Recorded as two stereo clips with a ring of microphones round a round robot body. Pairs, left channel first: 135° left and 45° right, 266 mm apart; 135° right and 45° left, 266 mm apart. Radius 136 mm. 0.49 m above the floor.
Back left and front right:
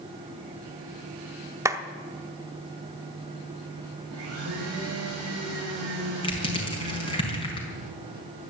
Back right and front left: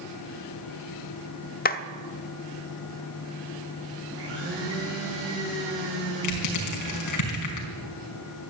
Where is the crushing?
155° right, 4.5 m.